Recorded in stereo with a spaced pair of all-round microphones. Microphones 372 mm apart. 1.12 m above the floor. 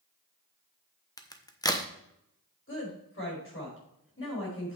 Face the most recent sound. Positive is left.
turn(degrees=35)  # may be behind; listen again after turning